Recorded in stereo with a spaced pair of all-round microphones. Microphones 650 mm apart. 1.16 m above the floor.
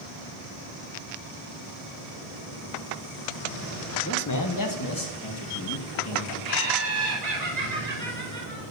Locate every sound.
4.0 s a man speaking: 25° left (ahead or behind), 1.0 m; by 6.3 s 35° left (ahead or behind), 2 m
6.4 s laughter: 80° right, 4 m